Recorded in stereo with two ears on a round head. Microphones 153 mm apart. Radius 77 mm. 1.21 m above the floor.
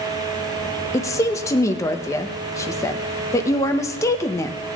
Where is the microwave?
I don't hear a microwave.